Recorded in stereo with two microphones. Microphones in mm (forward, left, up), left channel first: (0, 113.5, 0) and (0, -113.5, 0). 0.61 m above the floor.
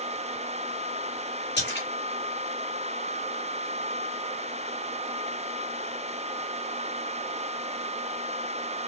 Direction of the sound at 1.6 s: 50° left (ahead or behind).